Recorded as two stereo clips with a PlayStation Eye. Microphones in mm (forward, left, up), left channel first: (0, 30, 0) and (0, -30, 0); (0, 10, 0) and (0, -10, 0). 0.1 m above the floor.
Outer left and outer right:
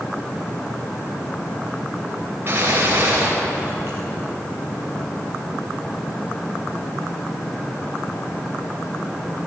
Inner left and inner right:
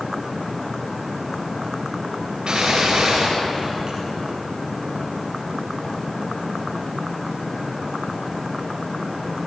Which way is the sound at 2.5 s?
40° right (ahead or behind).